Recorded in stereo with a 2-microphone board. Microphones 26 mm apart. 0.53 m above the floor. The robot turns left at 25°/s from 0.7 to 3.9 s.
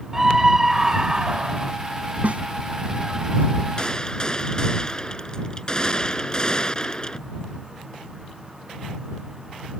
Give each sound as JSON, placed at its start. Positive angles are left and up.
{"t": 0.1, "sound": "a scream", "side_deg": -15}
{"t": 2.2, "sound": "a snare drum", "side_deg": -60}
{"t": 3.8, "sound": "a gunshot", "side_deg": 30}